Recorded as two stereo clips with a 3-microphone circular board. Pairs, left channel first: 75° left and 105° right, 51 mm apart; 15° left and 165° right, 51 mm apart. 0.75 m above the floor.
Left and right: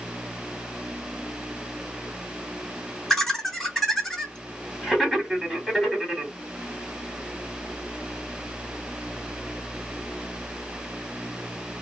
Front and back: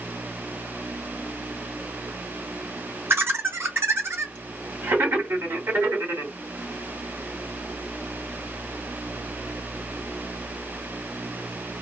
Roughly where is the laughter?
Behind left.